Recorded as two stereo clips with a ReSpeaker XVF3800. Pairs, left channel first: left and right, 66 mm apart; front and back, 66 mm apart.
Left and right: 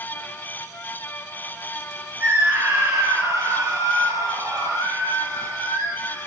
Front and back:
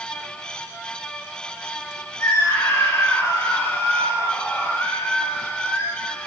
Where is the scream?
35° right, 3 m; by 6.3 s 55° right, 6 m.